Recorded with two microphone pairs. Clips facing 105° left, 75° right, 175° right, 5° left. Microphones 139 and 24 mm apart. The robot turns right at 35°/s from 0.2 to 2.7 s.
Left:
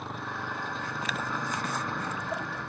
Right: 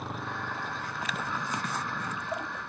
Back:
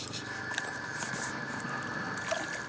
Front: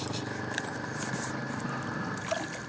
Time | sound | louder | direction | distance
0.0 | a motorcycle | even, front 3 dB | 15° left | ?